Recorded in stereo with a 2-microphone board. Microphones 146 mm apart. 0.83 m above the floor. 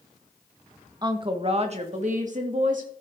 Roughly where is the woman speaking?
Right.